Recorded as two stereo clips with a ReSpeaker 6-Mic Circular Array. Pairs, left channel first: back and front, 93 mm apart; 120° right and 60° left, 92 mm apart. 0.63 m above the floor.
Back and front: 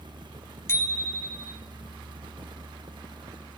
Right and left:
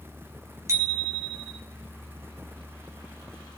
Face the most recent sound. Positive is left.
turn(degrees=115)